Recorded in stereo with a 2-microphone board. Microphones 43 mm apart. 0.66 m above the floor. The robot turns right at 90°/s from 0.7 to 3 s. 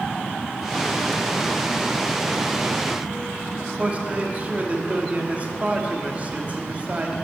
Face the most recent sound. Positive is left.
turn(degrees=-35)  # may be behind; listen again after turning